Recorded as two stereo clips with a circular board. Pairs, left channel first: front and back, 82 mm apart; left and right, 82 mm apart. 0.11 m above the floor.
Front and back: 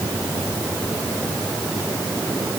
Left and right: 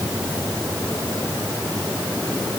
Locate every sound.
Only background noise.